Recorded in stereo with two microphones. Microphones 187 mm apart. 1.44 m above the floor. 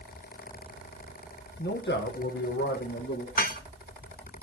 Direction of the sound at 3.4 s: 50° left (ahead or behind).